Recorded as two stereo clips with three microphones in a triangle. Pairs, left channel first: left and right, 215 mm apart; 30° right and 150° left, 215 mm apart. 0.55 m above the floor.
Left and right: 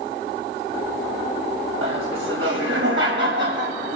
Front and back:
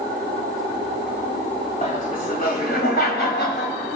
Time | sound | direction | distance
1.8 | laughter | 80° right | 3 m